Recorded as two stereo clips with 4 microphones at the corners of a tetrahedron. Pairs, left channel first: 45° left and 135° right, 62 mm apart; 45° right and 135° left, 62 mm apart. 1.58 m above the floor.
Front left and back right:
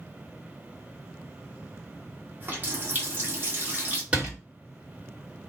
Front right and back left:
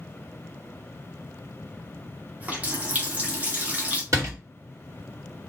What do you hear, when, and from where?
2.4 s a running tap: 170° right, 0.9 m
4.1 s a door slam: 155° left, 1.7 m